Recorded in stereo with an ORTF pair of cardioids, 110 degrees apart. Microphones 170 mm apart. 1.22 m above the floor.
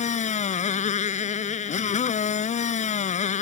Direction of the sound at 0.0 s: 45° left.